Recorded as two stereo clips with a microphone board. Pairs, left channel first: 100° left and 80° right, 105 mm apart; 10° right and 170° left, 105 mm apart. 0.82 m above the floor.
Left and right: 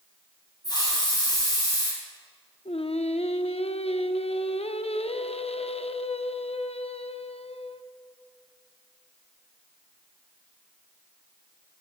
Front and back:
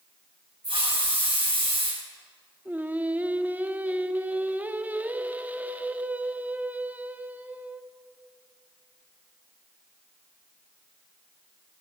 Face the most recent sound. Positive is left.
turn(degrees=100)